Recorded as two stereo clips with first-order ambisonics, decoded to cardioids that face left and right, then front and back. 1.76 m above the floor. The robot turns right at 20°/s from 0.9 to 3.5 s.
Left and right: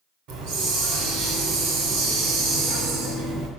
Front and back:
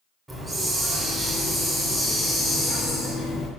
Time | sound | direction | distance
0.3 | a hiss | 105° right | 2.5 m